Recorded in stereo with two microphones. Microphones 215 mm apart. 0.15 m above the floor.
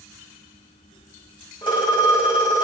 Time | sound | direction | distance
1.6 | a phone ringing | 20° left (ahead or behind) | 5 m